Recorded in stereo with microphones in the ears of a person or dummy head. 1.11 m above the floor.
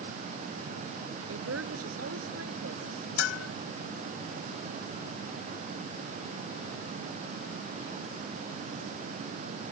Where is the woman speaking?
80° right.